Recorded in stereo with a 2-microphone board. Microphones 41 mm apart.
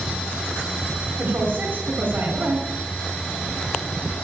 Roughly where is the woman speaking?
Right.